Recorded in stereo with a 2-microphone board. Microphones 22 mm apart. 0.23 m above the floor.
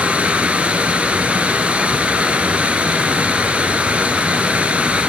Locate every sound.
0.0 s running water: 65° right (ahead or behind), 0.8 m